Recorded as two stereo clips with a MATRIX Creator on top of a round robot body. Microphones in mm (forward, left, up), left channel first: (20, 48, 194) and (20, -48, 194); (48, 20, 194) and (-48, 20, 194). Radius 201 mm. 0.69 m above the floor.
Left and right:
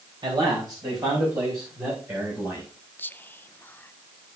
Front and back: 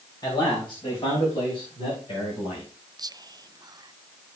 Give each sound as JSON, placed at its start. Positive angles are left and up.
{"t": 0.2, "sound": "a man speaking", "azimuth_deg": -50, "distance_m": 4.5}
{"t": 3.0, "sound": "whispering", "azimuth_deg": 155, "distance_m": 0.8}